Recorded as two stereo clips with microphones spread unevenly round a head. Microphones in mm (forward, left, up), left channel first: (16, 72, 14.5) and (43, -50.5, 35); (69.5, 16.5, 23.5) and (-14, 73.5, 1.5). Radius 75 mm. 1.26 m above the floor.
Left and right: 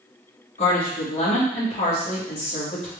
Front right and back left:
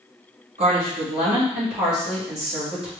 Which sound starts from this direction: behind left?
A woman speaking, at 0.6 s.